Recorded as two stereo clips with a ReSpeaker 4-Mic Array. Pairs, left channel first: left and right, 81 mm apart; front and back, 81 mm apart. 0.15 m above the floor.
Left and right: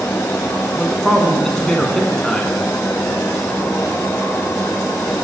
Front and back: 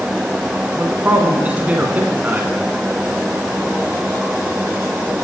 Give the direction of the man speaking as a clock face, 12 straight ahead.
7 o'clock.